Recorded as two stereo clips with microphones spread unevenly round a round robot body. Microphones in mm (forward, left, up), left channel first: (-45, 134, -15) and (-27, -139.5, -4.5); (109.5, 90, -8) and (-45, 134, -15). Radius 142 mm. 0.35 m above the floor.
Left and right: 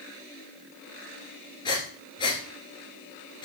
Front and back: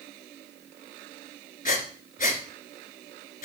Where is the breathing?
20° left, 1.6 m.